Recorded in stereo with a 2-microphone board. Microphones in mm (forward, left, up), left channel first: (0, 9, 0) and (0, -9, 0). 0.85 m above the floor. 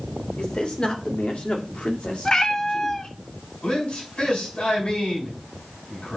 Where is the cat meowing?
35° left (ahead or behind), 0.9 m.